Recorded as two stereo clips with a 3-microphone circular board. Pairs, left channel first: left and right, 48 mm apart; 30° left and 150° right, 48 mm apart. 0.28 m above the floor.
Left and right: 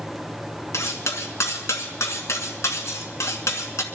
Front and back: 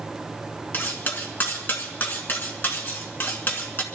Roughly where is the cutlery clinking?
Left.